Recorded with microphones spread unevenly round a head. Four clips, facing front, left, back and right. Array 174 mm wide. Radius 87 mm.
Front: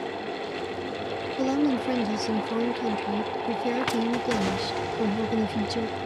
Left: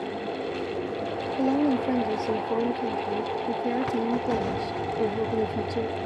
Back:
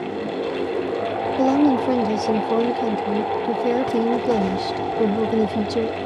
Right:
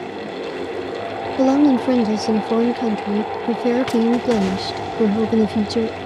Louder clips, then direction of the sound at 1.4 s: Right 9 dB, back 7 dB; 90° right.